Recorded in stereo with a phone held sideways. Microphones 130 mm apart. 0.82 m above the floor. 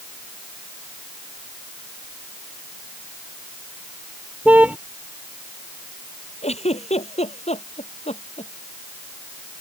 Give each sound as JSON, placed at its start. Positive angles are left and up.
{"t": 4.5, "sound": "a car horn", "side_deg": -10}
{"t": 6.4, "sound": "a giggle", "side_deg": 55}